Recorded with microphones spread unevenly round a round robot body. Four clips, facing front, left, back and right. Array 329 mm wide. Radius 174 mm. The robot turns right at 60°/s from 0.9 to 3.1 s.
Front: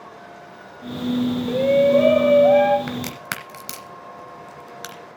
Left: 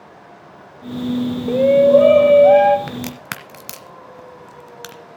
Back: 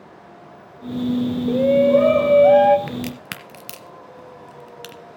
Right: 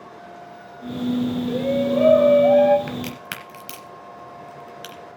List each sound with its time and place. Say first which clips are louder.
1.5 s a shout: left 13 dB, back 1 dB; 70° left, 1.2 m; by 2.8 s 150° left, 1.2 m
2.9 s a crack: left 2 dB, even; 105° left, 0.6 m; by 5.0 s 120° left, 0.6 m